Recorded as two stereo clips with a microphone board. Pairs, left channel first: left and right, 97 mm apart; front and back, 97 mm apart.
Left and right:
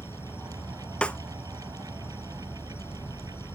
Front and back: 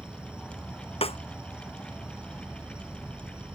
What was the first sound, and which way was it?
An insect, 110° left.